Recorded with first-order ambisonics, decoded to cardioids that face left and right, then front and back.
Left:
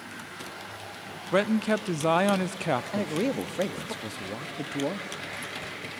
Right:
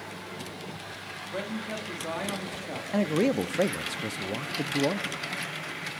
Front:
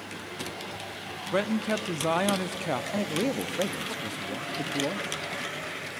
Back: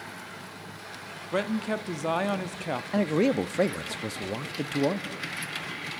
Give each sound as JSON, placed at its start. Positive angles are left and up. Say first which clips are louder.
{"t": 1.3, "sound": "a man speaking", "louder": "left 11 dB, front 1 dB", "azimuth_deg": 85, "distance_m": 0.6}
{"t": 2.9, "sound": "a man speaking", "louder": "right 3 dB, back 4 dB", "azimuth_deg": -150, "distance_m": 0.5}